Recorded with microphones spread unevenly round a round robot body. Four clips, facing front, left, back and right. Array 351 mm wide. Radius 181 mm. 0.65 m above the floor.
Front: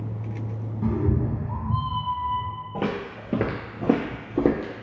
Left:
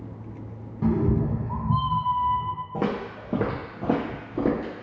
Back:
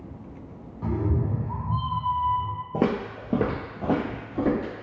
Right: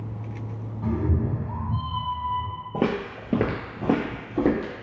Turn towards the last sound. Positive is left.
turn(degrees=0)